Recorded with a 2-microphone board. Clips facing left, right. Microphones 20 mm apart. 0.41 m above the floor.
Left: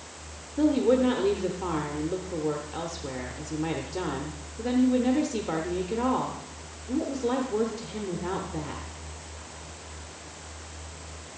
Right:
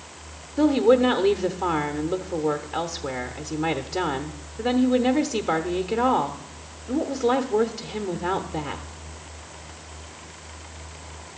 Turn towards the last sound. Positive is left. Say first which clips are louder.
# right 4 dB
turn(degrees=-25)  # may be behind; listen again after turning